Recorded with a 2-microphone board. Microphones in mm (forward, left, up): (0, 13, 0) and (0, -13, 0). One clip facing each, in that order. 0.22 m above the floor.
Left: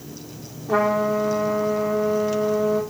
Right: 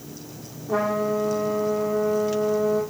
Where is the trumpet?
60° left (ahead or behind), 3.5 m.